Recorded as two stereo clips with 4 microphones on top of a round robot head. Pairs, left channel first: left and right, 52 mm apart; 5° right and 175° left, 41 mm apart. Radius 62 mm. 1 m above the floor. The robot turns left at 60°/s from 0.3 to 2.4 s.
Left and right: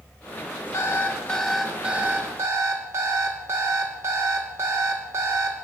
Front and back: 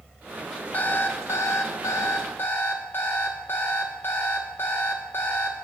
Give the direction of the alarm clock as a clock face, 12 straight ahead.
10 o'clock.